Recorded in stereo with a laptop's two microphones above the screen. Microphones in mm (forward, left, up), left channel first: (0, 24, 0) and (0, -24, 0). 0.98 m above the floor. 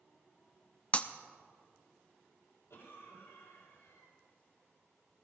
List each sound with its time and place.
0.9 s breaking glass: 25° left (ahead or behind), 0.6 m
2.7 s a cough: 70° left (ahead or behind), 3.5 m